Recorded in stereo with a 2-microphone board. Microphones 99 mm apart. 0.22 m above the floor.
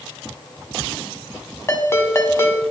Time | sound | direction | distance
1.7 | a ringtone | 25° left (ahead or behind) | 0.9 m